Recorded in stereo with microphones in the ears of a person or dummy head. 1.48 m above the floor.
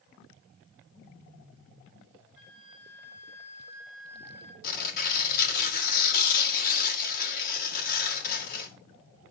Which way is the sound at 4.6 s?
50° left (ahead or behind).